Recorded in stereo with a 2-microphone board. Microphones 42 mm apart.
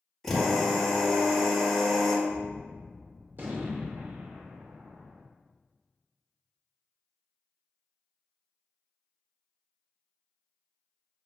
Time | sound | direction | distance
0.2 | a drill | 5° left (ahead or behind) | 1.5 m
2.3 | a gunshot | 50° right (ahead or behind) | 0.7 m